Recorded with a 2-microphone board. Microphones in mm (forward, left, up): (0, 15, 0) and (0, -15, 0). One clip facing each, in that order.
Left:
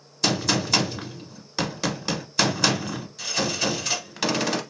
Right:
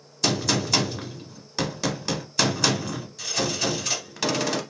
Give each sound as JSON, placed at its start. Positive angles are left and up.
{"t": 0.2, "sound": "a gunshot", "side_deg": 5, "distance_m": 0.8}